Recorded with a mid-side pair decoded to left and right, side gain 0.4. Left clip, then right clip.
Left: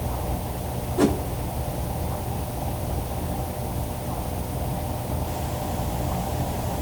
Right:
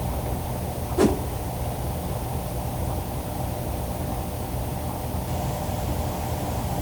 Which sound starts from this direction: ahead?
A whoosh, at 1.0 s.